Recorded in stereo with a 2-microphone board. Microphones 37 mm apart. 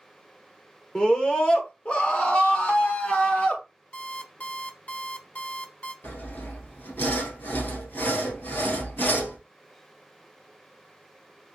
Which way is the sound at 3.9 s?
50° left (ahead or behind).